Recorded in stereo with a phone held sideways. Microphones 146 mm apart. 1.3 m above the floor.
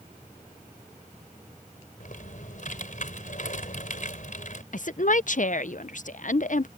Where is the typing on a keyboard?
65° left (ahead or behind).